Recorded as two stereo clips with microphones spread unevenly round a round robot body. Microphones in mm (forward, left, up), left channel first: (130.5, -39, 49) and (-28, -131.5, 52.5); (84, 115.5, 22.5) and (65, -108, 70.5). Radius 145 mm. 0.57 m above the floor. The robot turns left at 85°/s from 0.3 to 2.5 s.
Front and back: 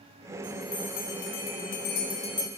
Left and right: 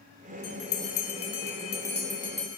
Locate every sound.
0.4 s a bell: 130° left, 2.5 m; by 2.5 s 45° right, 2.5 m